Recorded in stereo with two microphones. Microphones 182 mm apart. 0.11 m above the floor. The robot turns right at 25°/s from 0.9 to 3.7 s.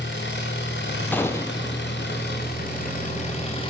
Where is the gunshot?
10° left (ahead or behind), 1.7 m; by 1.8 s 25° left (ahead or behind), 1.7 m.